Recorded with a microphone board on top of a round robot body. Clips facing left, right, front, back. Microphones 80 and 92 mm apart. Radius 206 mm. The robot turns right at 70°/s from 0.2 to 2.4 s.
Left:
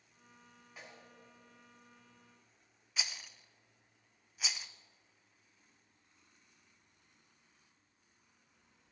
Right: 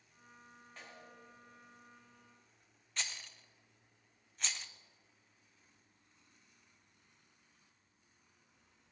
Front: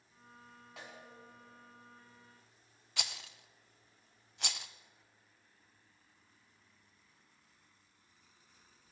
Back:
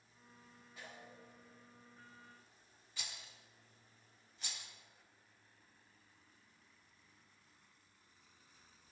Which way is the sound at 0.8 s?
5° left.